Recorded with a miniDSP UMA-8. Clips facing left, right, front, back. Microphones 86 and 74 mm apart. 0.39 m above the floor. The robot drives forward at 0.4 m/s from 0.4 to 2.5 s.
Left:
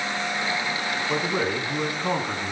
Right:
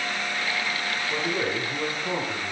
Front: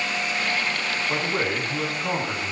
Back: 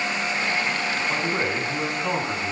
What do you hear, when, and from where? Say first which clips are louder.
1.1 s a man speaking: left 2 dB, front 2 dB; 90° left, 4.5 m; by 2.5 s 95° left, 4.5 m